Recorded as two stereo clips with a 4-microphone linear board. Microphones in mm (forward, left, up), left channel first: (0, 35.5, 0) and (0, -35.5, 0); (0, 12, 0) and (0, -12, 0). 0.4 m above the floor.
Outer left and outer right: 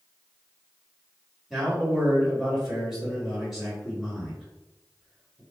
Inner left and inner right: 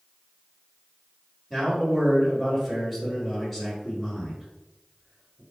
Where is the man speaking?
Centre (ahead or behind), 1.7 m.